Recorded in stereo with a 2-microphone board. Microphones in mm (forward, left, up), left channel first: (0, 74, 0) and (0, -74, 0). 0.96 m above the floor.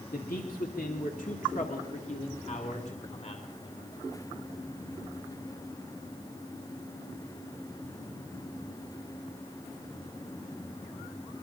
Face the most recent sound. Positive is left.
turn(degrees=40)  # may be behind; listen again after turning